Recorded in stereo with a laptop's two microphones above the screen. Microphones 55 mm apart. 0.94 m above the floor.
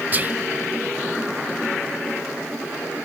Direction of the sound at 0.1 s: 35° right (ahead or behind).